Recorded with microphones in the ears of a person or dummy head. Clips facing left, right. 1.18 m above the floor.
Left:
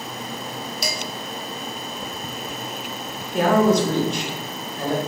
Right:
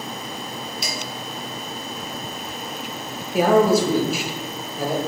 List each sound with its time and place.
0.8 s dishes clattering: 40° left (ahead or behind), 1.6 m
3.3 s a man speaking: 5° right (ahead or behind), 1.0 m